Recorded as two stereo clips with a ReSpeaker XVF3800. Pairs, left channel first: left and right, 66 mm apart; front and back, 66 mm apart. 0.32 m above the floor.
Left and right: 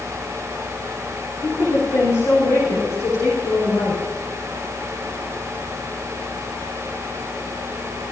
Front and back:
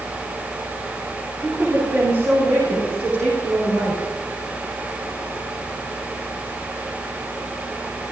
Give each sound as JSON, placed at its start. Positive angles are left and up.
{"t": 1.4, "sound": "a woman speaking", "azimuth_deg": 125, "distance_m": 4.5}